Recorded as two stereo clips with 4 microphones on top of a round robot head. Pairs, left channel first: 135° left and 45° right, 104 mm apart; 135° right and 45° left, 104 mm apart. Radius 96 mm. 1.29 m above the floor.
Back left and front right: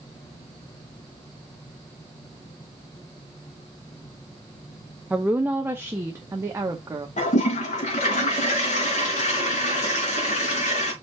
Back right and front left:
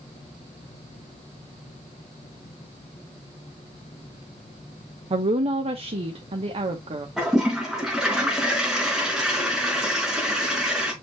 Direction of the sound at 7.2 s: 130° left.